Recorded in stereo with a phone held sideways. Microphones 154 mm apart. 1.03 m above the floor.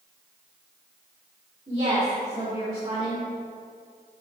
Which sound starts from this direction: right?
A woman speaking, at 1.7 s.